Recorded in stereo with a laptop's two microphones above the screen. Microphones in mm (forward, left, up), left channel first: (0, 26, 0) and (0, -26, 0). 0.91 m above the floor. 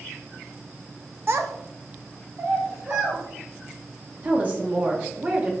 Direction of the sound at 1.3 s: 45° right (ahead or behind).